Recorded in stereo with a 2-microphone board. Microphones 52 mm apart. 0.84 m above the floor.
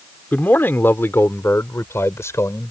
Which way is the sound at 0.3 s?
40° left (ahead or behind).